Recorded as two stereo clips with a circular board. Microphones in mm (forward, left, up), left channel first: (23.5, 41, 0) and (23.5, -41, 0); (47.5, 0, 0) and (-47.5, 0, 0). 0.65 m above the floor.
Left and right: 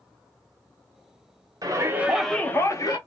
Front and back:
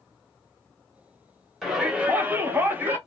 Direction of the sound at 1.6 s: 95° right.